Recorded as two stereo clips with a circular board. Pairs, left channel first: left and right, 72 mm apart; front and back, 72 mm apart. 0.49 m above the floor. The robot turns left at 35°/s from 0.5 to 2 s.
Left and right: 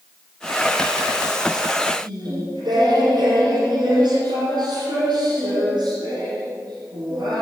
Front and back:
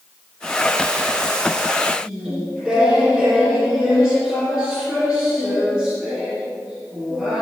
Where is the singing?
100° right, 6 m.